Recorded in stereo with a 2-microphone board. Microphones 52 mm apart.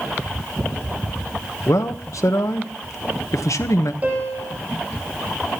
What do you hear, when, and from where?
1.7 s a man speaking: 80° left, 1.1 m
4.0 s a piano: 30° right (ahead or behind), 7.5 m